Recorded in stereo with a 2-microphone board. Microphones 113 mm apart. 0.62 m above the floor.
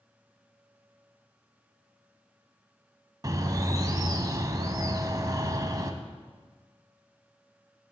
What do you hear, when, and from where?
3.2 s a bird: 30° right (ahead or behind), 0.6 m